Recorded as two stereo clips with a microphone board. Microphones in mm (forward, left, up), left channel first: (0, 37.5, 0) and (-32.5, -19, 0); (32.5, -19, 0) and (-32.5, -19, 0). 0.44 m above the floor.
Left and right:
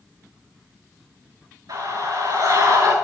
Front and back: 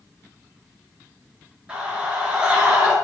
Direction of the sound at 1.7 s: 105° right.